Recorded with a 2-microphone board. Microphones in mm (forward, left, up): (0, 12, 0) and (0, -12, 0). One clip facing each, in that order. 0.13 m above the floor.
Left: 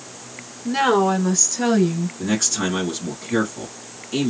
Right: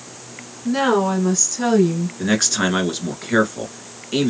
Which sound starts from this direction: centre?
A woman speaking, at 0.7 s.